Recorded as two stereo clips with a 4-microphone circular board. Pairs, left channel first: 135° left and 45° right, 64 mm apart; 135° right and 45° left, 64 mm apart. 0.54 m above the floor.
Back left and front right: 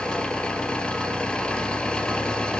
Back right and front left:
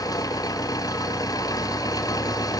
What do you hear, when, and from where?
0.0 s an engine running: 150° right, 3 m